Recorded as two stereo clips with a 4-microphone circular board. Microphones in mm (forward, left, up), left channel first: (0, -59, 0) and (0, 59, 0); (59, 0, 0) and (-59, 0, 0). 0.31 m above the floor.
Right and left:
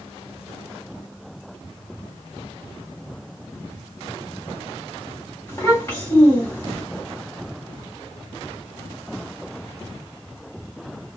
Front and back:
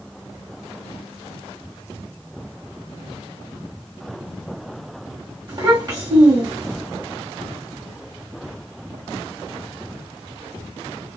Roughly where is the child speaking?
Behind right.